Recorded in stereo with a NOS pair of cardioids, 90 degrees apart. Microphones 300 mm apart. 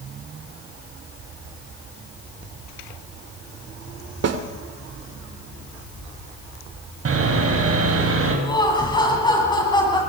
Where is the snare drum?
55° right, 2.5 m.